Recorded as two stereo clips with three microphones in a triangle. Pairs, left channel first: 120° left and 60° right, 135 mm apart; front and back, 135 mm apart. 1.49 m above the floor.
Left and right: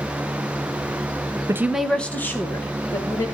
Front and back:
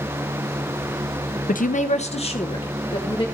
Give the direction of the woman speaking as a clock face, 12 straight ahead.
12 o'clock.